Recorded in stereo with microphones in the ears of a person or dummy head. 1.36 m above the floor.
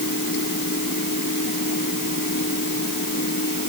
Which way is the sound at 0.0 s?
70° left (ahead or behind).